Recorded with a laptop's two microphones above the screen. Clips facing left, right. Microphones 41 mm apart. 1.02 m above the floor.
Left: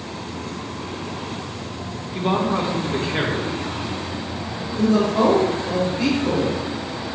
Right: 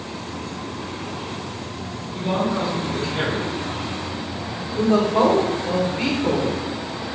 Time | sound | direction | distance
2.1 | a man speaking | 80° left | 2.5 m
4.8 | a woman speaking | 45° right (ahead or behind) | 3 m